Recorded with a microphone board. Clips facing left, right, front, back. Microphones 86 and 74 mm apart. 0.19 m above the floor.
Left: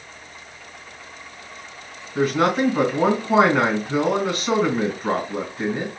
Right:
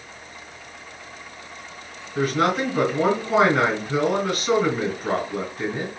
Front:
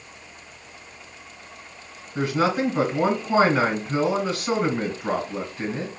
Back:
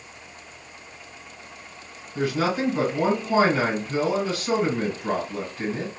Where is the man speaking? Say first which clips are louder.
Left 2 dB, front 2 dB; 50° left, 1.7 m.